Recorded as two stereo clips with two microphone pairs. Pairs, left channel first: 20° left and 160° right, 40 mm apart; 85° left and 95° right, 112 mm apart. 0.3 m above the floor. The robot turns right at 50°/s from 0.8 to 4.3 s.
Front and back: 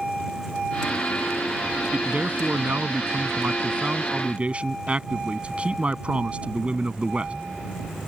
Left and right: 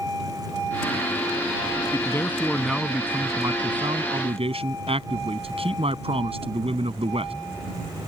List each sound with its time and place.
1.9 s a man speaking: 140° left; by 7.3 s 105° right